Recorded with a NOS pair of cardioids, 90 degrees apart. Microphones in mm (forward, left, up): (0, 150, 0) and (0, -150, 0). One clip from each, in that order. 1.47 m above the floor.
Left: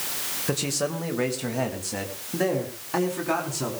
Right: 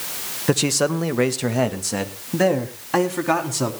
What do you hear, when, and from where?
0.5 s a man speaking: 40° right, 1.6 m; by 3.7 s 45° right, 4.5 m